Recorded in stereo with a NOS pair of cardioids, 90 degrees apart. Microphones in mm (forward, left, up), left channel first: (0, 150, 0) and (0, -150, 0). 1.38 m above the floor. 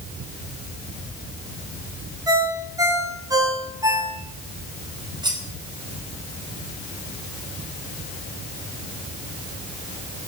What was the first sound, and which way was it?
A ringtone, 10° right.